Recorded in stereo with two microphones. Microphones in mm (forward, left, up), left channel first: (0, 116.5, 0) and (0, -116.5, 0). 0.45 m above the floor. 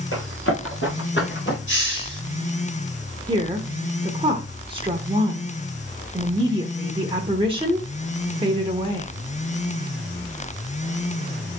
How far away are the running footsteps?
About 4.5 m.